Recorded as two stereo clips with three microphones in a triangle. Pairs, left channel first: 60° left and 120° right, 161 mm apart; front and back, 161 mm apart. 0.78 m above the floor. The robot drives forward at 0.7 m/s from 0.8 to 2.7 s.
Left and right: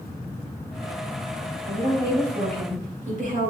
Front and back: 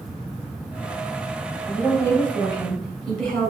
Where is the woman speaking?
70° right, 3 m; by 3.5 s 85° right, 3 m.